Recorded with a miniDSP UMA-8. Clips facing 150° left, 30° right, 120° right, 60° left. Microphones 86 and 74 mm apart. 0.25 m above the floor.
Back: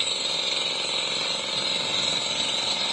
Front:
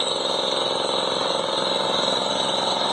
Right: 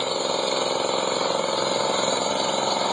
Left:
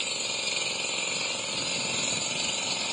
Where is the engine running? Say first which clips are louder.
Front 10 dB, right 12 dB; 80° right.